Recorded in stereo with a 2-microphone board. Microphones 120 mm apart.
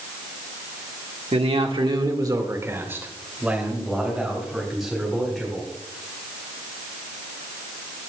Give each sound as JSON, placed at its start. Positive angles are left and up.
{"t": 1.3, "sound": "a man speaking", "side_deg": -65, "distance_m": 1.4}